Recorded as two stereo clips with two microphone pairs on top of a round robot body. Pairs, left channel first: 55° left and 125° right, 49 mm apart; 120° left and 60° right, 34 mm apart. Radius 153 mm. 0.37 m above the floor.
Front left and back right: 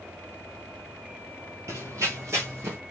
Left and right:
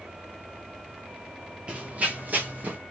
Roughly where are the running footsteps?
Behind right.